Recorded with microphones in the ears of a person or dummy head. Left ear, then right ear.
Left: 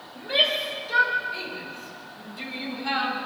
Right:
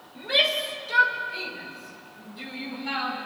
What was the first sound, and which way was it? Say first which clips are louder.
A shout: even; 25° right (ahead or behind).